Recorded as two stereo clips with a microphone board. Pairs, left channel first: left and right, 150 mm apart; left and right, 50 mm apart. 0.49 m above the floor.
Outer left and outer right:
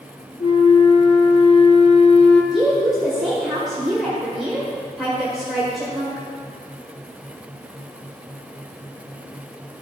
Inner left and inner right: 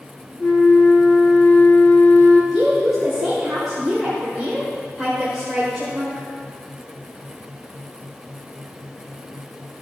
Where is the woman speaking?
Centre (ahead or behind), 1.7 m.